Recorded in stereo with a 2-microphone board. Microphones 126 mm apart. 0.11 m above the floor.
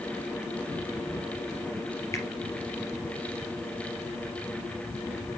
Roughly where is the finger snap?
Left.